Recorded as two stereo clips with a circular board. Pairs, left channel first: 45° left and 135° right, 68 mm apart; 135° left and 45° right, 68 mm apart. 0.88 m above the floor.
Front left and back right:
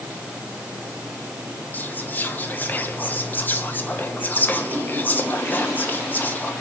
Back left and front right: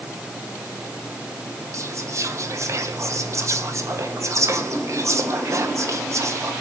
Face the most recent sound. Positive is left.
turn(degrees=-10)